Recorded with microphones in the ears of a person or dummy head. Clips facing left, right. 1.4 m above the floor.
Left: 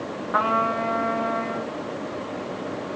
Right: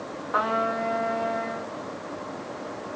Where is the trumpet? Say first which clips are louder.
Left 1 dB; 40° left (ahead or behind), 1.8 m.